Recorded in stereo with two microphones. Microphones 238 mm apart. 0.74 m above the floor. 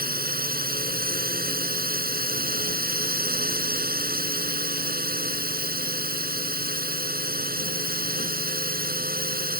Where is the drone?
40° right (ahead or behind).